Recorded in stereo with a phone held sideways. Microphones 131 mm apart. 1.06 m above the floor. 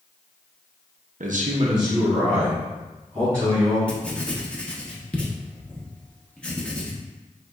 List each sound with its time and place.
1.2 s a man speaking: 80° right, 0.7 m; by 3.8 s 15° left (ahead or behind), 3 m
3.9 s writing: 10° left (ahead or behind), 0.6 m